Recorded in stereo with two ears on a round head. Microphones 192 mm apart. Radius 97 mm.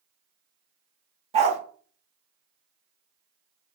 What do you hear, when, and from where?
1.3 s a dog barking: 30° right (ahead or behind), 0.9 m